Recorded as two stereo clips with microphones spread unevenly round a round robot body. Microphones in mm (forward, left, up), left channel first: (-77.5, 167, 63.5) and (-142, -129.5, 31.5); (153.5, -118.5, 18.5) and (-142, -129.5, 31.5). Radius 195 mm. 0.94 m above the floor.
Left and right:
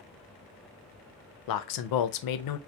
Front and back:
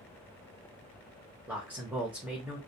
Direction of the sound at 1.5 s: 95° left.